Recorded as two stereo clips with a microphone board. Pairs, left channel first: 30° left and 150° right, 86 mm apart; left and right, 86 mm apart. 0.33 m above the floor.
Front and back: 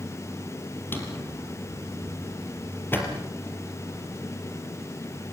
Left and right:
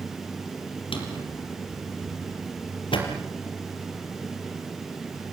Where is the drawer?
95° left, 4.5 m.